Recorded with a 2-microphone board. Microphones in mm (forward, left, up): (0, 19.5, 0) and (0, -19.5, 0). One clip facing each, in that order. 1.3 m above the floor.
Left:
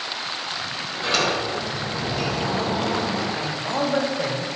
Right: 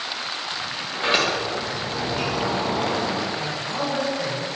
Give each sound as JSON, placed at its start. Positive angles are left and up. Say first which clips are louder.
{"t": 0.9, "sound": "a sliding door", "louder": "right 1 dB", "side_deg": -25, "distance_m": 1.2}
{"t": 3.4, "sound": "a man speaking", "louder": "left 2 dB", "side_deg": 35, "distance_m": 1.1}